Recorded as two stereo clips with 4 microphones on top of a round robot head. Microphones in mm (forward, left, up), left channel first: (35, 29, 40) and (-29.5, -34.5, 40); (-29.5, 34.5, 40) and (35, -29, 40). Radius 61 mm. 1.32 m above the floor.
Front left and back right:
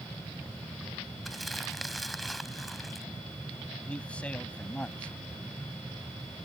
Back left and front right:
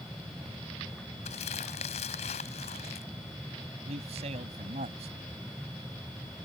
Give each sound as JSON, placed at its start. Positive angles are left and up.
{"t": 1.2, "sound": "crumpling", "azimuth_deg": 135}
{"t": 3.9, "sound": "a man speaking", "azimuth_deg": -35}